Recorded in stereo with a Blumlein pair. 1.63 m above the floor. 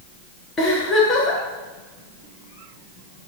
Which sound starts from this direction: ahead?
A giggle, at 0.6 s.